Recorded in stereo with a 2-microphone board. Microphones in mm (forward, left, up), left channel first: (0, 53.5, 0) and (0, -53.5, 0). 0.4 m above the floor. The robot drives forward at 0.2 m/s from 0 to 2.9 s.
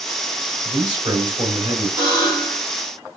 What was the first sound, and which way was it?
A man speaking, 55° right (ahead or behind).